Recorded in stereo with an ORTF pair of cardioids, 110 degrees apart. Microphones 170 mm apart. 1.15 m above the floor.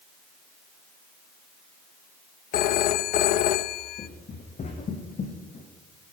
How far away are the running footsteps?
About 6 m.